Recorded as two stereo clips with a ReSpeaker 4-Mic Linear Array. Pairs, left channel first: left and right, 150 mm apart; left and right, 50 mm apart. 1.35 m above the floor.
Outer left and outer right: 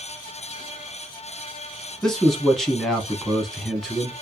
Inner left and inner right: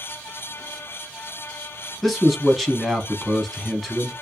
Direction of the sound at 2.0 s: Centre (ahead or behind).